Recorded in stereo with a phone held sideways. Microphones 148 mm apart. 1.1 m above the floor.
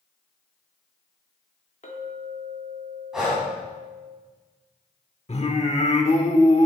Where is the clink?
55° left (ahead or behind), 2 m.